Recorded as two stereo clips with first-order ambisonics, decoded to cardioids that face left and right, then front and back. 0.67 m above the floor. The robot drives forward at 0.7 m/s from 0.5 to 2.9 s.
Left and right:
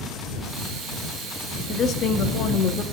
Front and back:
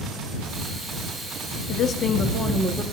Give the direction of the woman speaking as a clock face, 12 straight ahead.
11 o'clock.